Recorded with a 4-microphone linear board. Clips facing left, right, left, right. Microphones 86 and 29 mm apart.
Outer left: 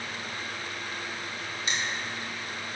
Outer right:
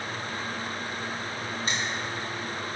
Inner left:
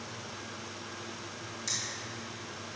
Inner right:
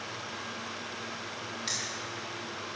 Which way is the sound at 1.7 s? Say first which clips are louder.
Even, inner right 1 dB; 40° right (ahead or behind).